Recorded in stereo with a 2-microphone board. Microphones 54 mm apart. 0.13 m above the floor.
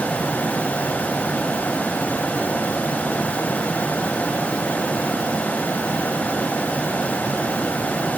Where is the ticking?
I don't hear ticking.